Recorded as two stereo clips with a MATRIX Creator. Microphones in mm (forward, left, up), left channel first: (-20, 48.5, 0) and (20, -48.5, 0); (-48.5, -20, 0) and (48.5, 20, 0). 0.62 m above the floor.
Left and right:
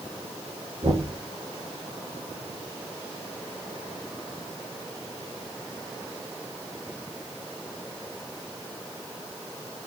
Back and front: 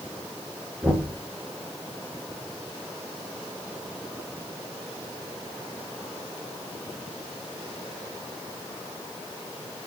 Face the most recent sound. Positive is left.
turn(degrees=-55)